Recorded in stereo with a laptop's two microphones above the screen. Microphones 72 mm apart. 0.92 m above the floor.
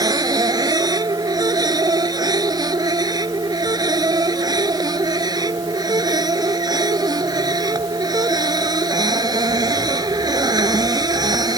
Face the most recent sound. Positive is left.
turn(degrees=-65)  # may be behind; listen again after turning